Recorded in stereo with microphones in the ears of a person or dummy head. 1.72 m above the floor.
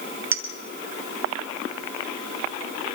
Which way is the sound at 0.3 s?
15° right (ahead or behind).